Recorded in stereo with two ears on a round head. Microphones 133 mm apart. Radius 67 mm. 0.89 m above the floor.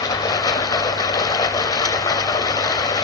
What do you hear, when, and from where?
0.0 s running water: 25° left (ahead or behind), 0.9 m